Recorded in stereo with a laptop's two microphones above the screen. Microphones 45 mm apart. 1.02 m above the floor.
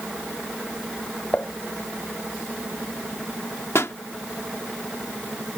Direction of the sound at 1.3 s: 40° left (ahead or behind).